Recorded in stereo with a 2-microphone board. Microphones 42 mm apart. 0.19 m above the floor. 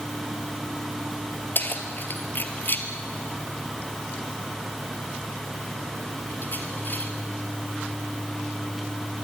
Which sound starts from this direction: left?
Keys jangling, at 1.6 s.